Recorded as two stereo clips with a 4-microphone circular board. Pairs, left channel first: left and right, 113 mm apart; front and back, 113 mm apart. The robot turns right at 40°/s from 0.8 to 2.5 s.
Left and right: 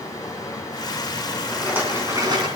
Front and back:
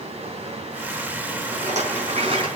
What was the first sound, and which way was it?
Running water, 150° left.